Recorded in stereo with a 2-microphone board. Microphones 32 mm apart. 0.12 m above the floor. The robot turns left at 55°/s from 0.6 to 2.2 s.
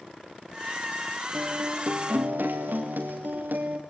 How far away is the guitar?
About 2.5 m.